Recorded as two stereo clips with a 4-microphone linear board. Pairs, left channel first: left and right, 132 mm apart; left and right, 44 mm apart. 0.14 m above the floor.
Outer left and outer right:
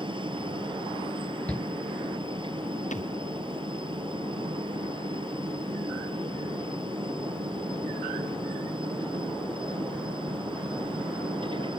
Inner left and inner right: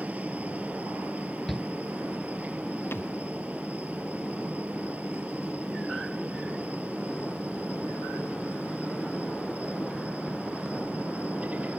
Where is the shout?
10° left (ahead or behind).